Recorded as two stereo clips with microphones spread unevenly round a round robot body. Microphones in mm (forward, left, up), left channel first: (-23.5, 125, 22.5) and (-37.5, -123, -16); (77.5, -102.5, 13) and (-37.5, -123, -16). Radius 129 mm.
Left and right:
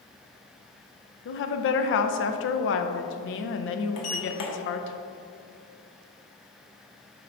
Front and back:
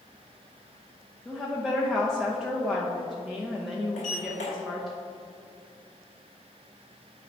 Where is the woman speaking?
115° left, 0.7 m.